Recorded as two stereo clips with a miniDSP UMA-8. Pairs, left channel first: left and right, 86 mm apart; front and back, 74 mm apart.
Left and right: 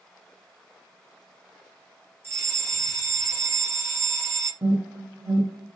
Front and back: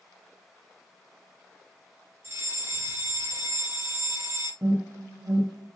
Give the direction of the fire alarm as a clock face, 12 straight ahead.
5 o'clock.